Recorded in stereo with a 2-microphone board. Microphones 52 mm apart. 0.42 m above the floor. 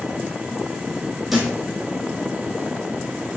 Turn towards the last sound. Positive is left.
turn(degrees=-5)  # may be behind; listen again after turning